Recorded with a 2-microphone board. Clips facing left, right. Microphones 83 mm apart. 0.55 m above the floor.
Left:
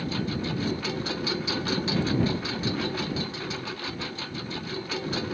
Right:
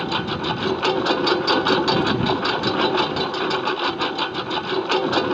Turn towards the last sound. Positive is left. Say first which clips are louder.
# right 6 dB
turn(degrees=-70)  # may be behind; listen again after turning